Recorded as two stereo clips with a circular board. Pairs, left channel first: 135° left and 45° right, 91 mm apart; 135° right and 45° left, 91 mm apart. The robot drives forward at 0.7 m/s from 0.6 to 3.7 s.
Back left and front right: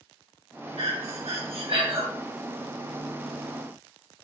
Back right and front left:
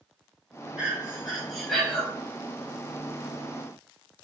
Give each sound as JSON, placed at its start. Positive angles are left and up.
{"t": 0.8, "sound": "breathing", "azimuth_deg": -35, "distance_m": 2.5}